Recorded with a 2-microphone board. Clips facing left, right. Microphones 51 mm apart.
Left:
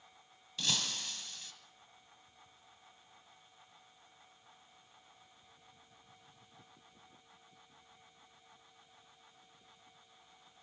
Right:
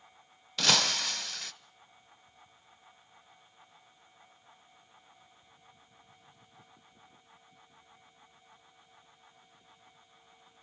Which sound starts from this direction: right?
Breaking glass, at 0.6 s.